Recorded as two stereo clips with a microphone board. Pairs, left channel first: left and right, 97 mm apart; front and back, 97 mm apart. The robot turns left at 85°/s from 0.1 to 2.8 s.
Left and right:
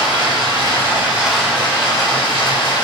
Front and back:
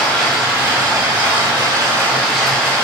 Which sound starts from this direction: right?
Running water, at 0.0 s.